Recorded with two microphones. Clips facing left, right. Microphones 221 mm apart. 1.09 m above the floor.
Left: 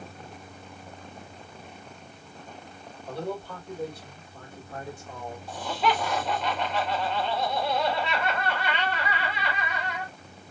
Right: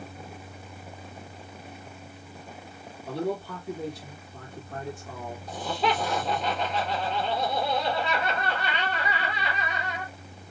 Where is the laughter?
35° right (ahead or behind), 1.7 m.